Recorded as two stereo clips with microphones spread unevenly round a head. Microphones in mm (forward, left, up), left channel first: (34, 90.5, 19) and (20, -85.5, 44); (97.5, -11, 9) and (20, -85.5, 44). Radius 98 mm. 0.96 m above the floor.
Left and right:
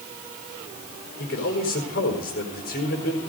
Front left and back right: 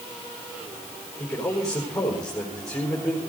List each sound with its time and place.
1.2 s a man speaking: 125° left, 4 m